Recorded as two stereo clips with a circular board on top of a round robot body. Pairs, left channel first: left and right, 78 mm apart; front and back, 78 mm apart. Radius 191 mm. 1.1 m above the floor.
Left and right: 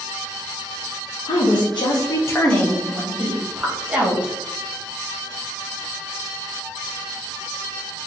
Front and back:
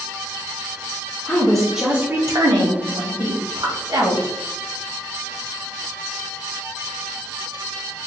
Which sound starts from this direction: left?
A woman speaking, at 1.2 s.